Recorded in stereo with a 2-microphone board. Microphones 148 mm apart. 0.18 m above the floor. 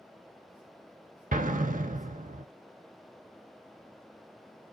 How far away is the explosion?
About 0.5 m.